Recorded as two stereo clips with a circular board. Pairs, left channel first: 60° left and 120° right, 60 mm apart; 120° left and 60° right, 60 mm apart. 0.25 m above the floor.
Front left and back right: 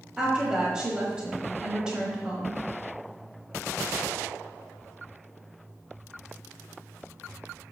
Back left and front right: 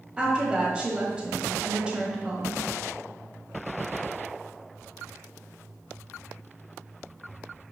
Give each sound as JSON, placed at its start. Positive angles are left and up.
{"t": 0.2, "sound": "a woman speaking", "azimuth_deg": -75, "distance_m": 1.2}